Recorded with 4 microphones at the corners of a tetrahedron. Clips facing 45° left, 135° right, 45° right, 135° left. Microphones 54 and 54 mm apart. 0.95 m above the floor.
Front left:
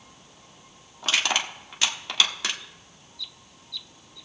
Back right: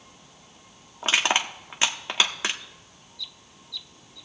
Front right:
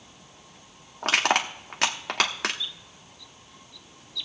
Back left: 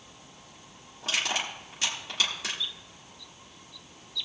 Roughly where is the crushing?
Right.